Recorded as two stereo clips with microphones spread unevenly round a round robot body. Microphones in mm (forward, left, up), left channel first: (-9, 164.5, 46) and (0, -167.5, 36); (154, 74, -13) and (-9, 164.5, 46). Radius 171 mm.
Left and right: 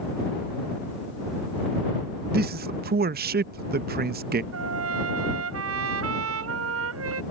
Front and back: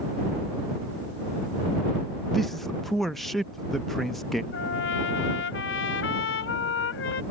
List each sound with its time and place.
2.3 s a man speaking: 80° right
4.5 s a trumpet: 40° right